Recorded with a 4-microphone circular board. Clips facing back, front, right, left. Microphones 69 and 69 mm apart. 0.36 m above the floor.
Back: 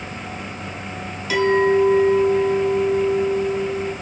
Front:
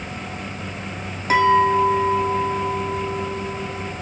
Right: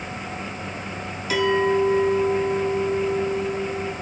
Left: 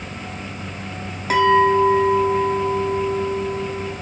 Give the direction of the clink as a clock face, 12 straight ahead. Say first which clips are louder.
Front 1 dB, left 6 dB; 10 o'clock.